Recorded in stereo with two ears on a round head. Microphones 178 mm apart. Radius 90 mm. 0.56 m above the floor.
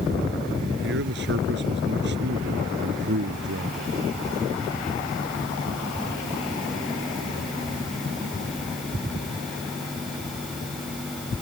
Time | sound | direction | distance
0.8 | a man speaking | 65° right (ahead or behind) | ?